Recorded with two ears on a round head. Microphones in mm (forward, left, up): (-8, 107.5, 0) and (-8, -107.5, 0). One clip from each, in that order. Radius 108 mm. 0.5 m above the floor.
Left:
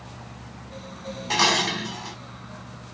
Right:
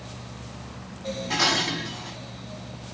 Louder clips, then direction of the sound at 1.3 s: Left 2 dB; 50° left (ahead or behind).